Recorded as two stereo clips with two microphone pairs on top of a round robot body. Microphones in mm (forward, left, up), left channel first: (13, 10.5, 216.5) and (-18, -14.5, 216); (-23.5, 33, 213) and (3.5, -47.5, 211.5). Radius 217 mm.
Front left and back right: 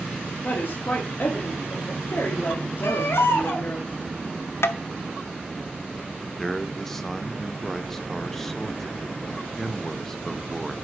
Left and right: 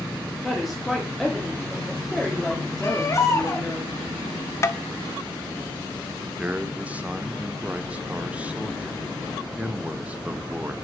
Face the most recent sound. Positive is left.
turn(degrees=-30)